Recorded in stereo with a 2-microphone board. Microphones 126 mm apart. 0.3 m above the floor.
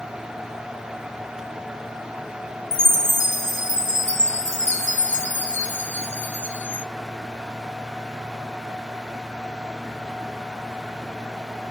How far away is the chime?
About 0.8 m.